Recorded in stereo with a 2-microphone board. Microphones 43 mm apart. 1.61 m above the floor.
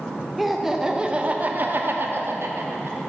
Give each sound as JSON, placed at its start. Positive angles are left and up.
{"t": 0.4, "sound": "laughter", "side_deg": 0, "distance_m": 1.0}